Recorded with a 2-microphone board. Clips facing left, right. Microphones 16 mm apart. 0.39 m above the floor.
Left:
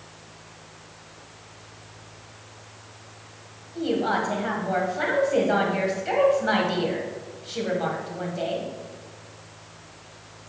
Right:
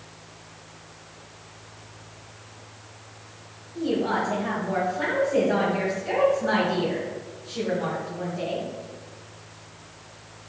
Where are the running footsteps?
No running footsteps in this recording.